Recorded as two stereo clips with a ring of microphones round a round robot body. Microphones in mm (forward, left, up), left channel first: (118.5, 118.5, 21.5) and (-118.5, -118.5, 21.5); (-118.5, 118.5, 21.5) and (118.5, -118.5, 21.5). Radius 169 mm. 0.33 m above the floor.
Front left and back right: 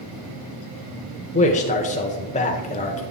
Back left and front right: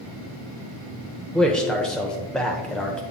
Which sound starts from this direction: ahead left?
A man speaking, at 1.3 s.